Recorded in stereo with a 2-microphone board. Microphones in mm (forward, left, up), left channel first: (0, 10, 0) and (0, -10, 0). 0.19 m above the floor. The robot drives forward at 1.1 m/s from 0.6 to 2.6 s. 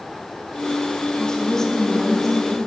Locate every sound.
1.2 s a woman speaking: 30° left (ahead or behind), 1.1 m; by 2.6 s 20° left (ahead or behind), 1.8 m